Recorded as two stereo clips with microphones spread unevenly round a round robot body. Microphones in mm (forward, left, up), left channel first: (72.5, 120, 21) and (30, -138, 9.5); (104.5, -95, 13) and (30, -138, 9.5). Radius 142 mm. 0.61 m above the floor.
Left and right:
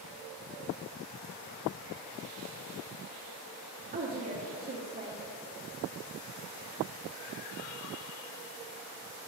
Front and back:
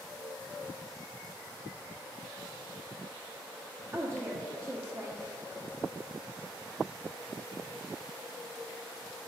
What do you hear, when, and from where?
3.9 s a woman speaking: 125° right, 1.4 m